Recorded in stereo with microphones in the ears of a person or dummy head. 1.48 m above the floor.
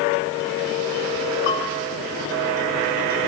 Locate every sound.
1.5 s a bell: 65° left (ahead or behind), 9 m